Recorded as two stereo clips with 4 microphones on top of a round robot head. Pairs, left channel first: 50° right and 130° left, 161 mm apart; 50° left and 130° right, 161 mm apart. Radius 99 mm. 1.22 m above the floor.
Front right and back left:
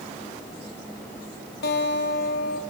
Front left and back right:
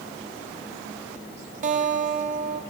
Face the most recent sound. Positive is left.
turn(degrees=-80)